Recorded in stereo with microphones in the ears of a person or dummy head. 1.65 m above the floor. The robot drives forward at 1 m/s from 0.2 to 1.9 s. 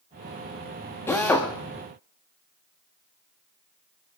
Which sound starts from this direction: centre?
A drill, at 1.1 s.